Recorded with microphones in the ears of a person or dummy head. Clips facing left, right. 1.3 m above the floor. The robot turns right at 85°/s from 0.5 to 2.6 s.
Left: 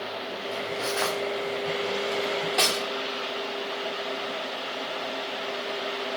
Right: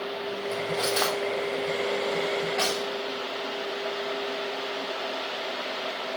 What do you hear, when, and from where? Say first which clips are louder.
0.5 s cutlery clinking: right 2 dB; 60° right (ahead or behind), 1.1 m; by 2.9 s 60° left (ahead or behind), 1.1 m